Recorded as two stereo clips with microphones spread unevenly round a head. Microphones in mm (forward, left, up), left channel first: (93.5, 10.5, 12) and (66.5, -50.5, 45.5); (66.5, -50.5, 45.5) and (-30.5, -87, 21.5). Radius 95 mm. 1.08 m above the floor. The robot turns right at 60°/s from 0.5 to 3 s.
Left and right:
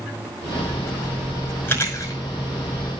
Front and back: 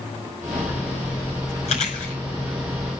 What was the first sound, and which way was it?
Chewing, 10° left.